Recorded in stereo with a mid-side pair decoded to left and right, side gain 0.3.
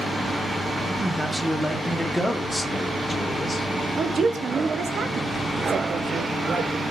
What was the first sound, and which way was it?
A man speaking, 30° right.